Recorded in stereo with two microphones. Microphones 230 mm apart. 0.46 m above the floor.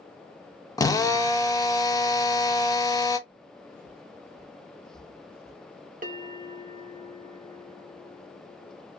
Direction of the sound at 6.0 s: 35° right (ahead or behind).